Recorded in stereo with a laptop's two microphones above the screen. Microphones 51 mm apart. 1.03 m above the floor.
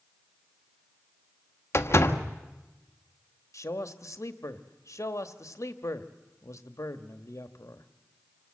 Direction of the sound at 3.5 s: 70° left (ahead or behind).